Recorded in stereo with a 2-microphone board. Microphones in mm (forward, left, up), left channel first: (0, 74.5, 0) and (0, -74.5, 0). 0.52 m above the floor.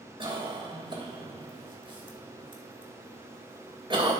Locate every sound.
0.2 s a cough: 35° right (ahead or behind), 2.5 m